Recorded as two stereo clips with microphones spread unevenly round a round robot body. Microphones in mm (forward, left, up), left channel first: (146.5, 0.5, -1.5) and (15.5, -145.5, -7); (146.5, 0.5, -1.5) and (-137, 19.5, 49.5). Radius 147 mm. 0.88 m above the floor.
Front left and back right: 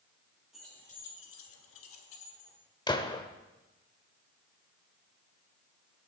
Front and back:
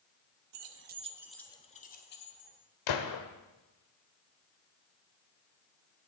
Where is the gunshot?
20° right, 1.2 m.